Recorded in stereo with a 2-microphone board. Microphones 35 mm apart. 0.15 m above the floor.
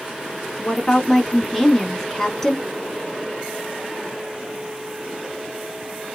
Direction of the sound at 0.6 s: 10° left (ahead or behind).